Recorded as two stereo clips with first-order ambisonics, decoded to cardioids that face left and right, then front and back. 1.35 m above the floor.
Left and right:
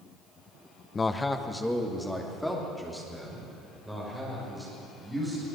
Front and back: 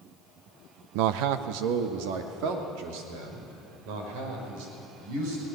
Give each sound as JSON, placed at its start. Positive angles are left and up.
{"t": 0.9, "sound": "a man speaking", "azimuth_deg": 165, "distance_m": 0.7}